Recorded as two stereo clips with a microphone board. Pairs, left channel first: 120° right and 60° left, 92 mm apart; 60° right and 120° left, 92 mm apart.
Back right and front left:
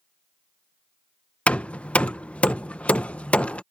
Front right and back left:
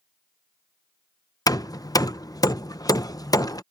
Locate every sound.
1.5 s hammering: 50° right